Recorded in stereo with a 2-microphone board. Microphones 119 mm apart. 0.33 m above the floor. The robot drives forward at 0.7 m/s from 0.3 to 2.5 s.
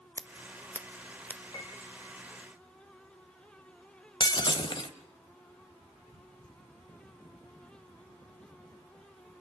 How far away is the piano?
About 1.6 m.